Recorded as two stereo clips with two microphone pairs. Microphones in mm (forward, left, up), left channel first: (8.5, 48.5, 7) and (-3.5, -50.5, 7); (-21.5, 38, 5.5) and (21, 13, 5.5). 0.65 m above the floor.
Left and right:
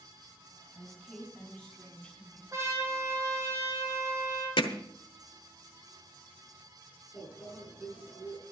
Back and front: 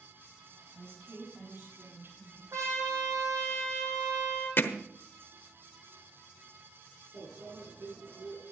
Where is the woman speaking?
5° right, 5 m; by 2.4 s 5° left, 7.5 m.